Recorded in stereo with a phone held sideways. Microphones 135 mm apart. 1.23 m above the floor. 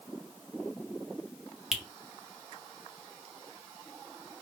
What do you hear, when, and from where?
1.7 s a finger snap: 5° right (ahead or behind), 0.6 m